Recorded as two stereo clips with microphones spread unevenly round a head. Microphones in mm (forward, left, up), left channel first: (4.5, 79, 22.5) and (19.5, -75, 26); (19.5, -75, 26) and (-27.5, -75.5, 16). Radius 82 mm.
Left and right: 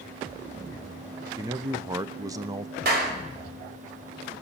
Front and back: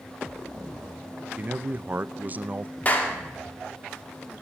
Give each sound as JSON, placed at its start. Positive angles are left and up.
{"t": 1.4, "sound": "a man speaking", "azimuth_deg": -150, "distance_m": 0.6}
{"t": 2.9, "sound": "a clap", "azimuth_deg": -55, "distance_m": 2.5}